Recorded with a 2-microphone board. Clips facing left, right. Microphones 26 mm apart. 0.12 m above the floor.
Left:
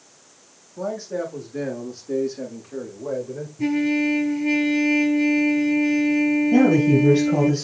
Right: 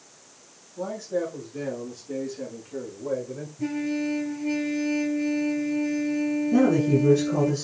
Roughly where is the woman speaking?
Left.